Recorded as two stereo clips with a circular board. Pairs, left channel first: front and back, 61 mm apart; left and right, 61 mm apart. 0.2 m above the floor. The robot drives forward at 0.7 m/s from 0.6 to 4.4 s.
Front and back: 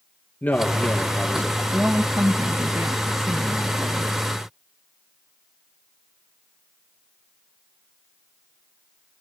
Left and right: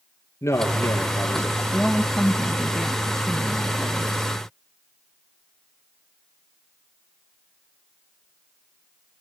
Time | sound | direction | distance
0.4 | a man speaking | 55° left | 5 m
1.7 | a woman speaking | 170° left | 1.0 m